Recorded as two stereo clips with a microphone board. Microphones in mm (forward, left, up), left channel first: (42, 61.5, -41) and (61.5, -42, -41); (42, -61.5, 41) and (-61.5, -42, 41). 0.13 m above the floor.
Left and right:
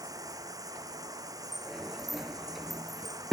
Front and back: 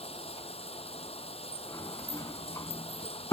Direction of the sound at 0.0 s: 25° right.